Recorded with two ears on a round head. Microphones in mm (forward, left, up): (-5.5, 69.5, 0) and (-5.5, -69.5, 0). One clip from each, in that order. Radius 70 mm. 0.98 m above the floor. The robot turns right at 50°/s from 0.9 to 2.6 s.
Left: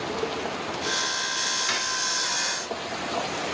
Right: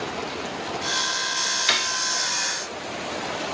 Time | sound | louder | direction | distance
1.7 | cutlery clinking | right 4 dB | 75° right (ahead or behind) | 1.0 m